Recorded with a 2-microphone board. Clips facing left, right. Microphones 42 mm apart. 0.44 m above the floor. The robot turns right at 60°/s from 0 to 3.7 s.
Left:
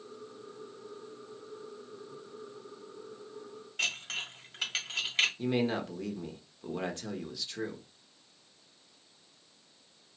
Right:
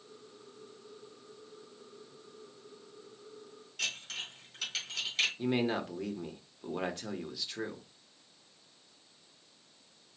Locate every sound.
3.8 s dishes clattering: 40° left (ahead or behind), 2.5 m
5.4 s a man speaking: 5° right (ahead or behind), 1.0 m